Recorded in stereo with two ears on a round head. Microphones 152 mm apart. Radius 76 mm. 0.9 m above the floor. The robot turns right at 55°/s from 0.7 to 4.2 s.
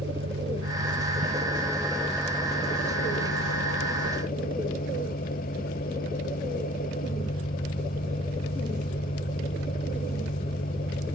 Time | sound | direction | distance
0.0 | an engine running | 70° right | ?